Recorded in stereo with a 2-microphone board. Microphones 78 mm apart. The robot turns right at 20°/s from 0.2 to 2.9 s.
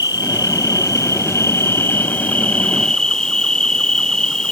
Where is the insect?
120° left; by 4.5 s 175° left.